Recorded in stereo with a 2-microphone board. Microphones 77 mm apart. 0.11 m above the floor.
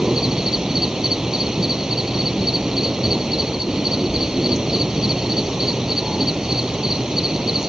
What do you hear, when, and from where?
0.0 s an insect: 10° right (ahead or behind)